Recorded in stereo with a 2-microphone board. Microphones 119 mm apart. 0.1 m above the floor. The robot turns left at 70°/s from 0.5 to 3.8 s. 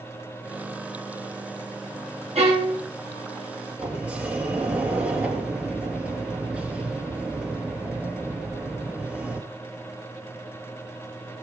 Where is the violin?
65° right, 5 m; by 2.8 s 100° right, 5 m.